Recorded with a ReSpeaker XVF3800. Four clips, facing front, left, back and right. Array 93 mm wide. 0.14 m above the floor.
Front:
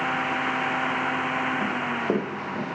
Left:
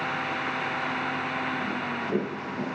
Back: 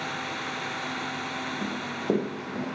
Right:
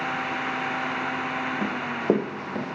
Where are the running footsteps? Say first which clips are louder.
Right 5 dB, front 4 dB; 85° right, 1.6 m; by 2.6 s 90° right, 2.5 m.